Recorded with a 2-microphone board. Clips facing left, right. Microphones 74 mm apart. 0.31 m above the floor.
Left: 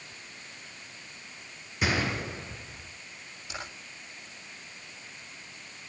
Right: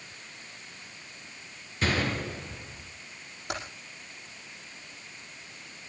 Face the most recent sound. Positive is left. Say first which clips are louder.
# right 5 dB
turn(degrees=-55)  # may be behind; listen again after turning